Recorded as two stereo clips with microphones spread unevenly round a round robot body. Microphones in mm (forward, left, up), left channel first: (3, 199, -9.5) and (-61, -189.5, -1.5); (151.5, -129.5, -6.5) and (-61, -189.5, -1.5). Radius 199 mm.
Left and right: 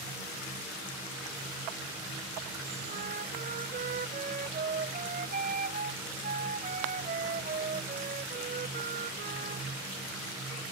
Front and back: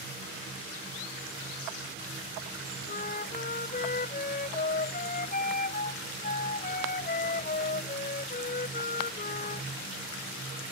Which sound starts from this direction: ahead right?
A flute, at 2.9 s.